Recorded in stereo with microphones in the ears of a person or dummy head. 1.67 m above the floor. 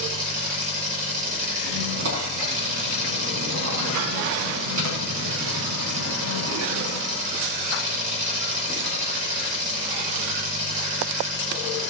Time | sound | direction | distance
0.0 | an engine running | 45° right (ahead or behind) | 6.5 m
1.6 | a squeak | 75° right (ahead or behind) | 5 m